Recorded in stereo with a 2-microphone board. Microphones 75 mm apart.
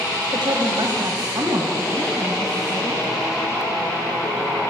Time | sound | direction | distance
0.3 | a woman speaking | 70° right (ahead or behind) | 2 m